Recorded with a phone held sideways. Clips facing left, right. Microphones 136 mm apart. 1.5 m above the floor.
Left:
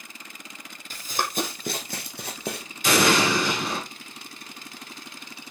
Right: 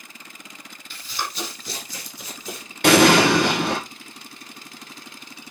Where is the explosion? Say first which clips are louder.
Right 7 dB; 65° right (ahead or behind), 1.6 m.